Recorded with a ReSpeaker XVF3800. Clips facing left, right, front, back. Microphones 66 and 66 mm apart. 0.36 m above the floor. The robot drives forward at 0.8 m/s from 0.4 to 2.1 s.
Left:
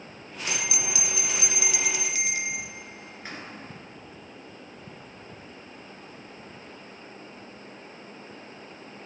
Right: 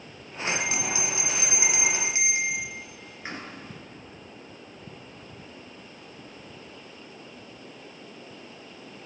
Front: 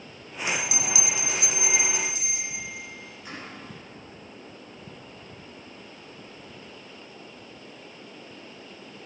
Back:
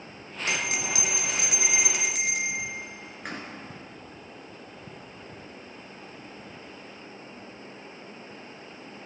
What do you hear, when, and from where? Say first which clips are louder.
0.5 s a bell: right 4 dB, even; 135° right, 1.5 m; by 3.4 s 155° right, 2.5 m